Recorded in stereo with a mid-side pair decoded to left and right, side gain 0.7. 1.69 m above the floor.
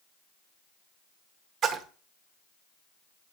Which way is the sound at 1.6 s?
45° right.